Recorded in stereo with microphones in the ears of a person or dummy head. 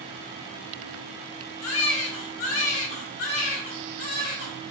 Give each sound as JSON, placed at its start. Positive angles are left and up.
{"t": 1.6, "sound": "a baby crying", "side_deg": 70, "distance_m": 5.0}